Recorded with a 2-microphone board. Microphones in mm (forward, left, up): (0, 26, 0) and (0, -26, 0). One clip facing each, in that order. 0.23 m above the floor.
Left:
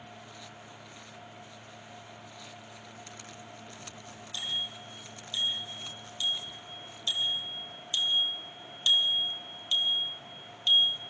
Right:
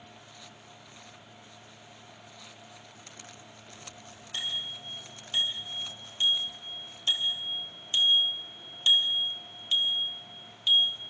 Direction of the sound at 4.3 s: 55° right (ahead or behind).